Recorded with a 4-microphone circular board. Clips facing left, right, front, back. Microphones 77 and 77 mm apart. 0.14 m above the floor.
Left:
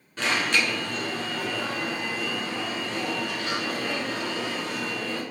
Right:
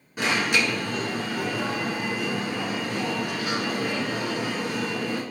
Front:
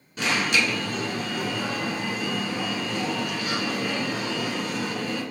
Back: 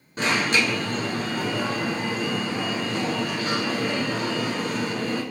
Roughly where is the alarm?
Behind.